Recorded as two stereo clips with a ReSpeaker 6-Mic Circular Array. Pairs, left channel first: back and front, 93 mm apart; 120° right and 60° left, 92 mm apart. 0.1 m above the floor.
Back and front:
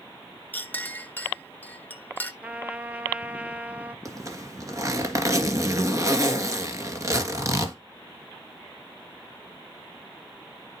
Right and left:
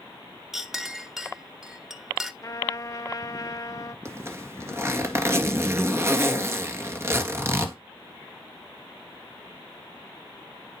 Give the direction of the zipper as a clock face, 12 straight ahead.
11 o'clock.